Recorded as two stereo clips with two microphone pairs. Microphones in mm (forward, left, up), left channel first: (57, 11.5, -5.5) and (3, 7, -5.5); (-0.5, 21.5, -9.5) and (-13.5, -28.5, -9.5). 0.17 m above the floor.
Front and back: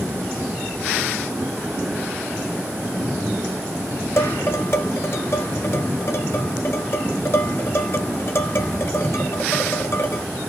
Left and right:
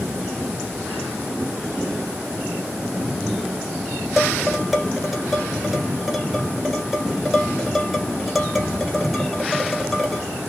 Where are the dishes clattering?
15° right, 1.6 m.